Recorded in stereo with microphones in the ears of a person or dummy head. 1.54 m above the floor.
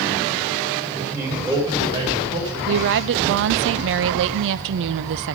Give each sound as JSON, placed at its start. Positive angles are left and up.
{"t": 0.9, "sound": "a man speaking", "side_deg": -15, "distance_m": 6.5}
{"t": 2.7, "sound": "a woman speaking", "side_deg": -65, "distance_m": 0.6}